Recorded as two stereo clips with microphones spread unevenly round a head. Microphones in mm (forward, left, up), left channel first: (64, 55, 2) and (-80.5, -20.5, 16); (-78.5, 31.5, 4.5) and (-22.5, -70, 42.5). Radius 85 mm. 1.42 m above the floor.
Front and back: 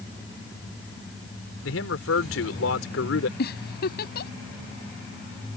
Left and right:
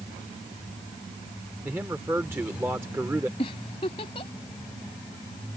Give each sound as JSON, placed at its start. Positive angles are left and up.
{"t": 1.6, "sound": "a man speaking", "azimuth_deg": 15}
{"t": 3.4, "sound": "a giggle", "azimuth_deg": 60}